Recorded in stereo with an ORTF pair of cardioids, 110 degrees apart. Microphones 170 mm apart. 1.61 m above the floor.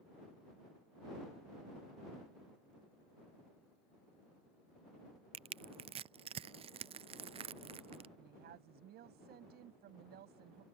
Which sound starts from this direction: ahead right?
Crushing, at 5.3 s.